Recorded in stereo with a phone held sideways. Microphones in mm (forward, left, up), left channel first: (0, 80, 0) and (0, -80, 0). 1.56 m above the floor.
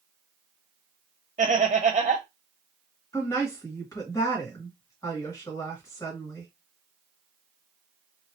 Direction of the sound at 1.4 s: 40° right (ahead or behind).